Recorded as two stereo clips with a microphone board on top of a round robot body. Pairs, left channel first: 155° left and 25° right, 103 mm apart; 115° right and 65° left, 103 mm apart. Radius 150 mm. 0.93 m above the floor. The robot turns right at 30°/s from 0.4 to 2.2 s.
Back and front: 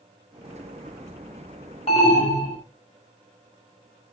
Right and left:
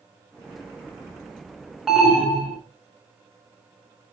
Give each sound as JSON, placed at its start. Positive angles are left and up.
{"t": 1.9, "sound": "an alarm", "azimuth_deg": 150, "distance_m": 3.0}